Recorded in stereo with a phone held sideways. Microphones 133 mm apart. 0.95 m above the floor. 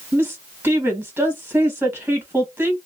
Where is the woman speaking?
15° right (ahead or behind), 1.4 m.